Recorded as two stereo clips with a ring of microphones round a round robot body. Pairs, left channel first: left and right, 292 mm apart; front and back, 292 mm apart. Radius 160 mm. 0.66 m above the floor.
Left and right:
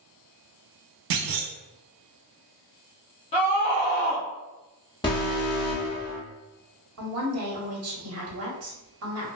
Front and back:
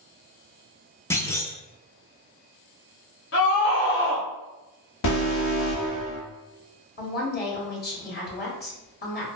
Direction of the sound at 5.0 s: 15° left.